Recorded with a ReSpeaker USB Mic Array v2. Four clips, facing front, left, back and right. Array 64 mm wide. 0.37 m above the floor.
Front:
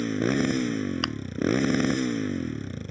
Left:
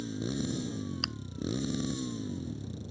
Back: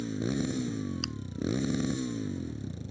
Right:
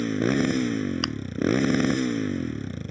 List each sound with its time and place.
0.0 s a motorcycle: 50° right
1.0 s chewing: 25° right